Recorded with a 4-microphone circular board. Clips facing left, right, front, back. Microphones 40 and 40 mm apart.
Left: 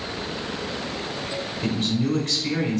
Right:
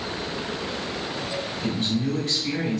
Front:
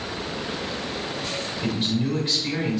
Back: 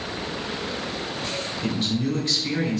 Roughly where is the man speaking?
Ahead left.